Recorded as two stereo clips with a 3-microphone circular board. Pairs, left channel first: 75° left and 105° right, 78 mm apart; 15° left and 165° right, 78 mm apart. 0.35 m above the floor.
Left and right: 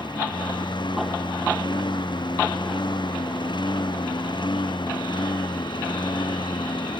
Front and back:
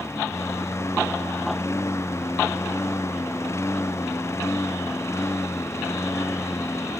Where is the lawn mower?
70° left.